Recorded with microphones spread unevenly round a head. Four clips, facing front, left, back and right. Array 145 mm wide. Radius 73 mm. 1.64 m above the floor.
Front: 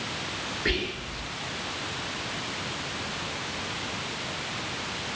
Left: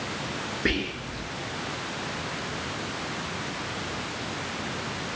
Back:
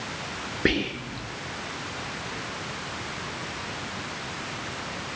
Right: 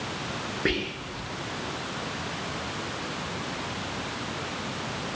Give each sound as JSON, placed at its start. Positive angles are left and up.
{"t": 0.7, "sound": "whispering", "azimuth_deg": -175, "distance_m": 1.2}